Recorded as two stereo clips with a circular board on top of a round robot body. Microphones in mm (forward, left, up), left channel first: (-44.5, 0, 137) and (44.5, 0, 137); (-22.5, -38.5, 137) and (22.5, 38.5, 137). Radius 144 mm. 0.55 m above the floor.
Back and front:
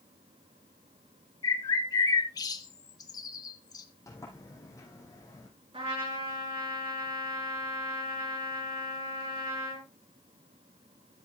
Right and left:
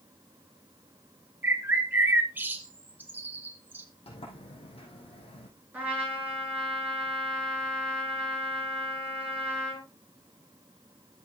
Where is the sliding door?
125° right, 4.5 m.